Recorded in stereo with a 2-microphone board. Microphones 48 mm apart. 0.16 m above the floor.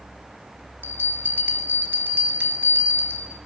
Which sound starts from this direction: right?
A bell, at 0.8 s.